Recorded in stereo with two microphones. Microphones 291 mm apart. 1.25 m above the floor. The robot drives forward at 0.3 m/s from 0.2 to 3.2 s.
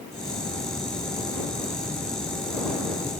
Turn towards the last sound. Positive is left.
No sound to turn to.